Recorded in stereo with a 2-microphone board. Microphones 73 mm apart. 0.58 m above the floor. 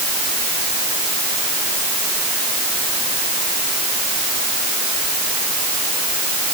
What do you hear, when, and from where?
Only background noise.